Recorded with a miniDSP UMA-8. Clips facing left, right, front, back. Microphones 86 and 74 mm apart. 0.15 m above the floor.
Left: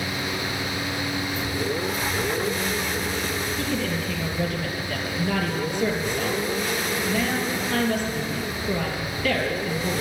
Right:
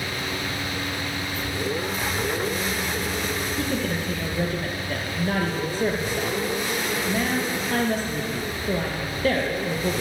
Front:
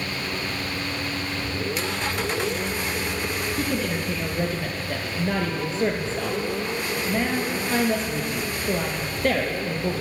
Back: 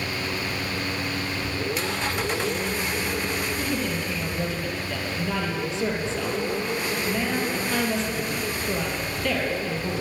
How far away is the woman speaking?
About 3 m.